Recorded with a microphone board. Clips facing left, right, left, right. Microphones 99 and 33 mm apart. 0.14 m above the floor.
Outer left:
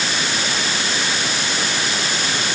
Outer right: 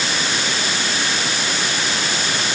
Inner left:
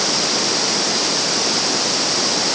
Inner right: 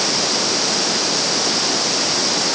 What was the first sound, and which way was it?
Only background noise.